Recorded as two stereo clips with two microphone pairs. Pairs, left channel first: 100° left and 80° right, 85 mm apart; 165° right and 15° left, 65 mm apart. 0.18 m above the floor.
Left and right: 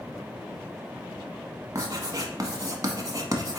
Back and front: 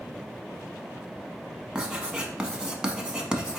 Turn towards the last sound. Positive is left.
turn(degrees=-65)